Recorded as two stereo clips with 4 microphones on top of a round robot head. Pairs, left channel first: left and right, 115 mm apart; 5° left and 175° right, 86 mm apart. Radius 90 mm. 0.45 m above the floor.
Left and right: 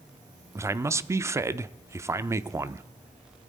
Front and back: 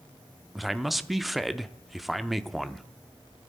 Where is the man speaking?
85° right, 0.7 m.